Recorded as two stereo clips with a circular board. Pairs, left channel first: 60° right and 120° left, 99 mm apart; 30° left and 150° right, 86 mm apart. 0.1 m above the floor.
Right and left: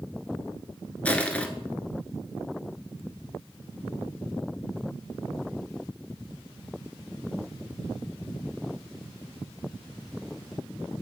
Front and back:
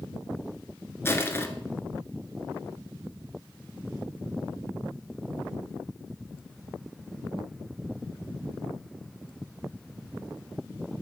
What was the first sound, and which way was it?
Crushing, 5° left.